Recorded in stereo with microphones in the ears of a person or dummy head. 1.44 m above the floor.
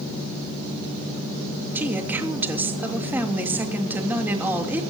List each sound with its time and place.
1.8 s a woman speaking: 10° right (ahead or behind), 3 m